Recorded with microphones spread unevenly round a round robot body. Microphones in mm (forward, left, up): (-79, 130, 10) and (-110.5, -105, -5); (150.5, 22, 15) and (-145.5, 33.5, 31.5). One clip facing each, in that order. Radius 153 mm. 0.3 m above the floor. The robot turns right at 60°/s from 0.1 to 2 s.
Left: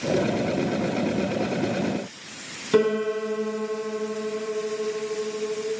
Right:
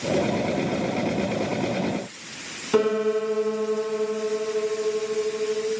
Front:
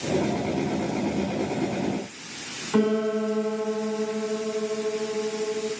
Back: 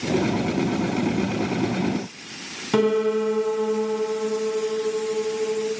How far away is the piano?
About 3 m.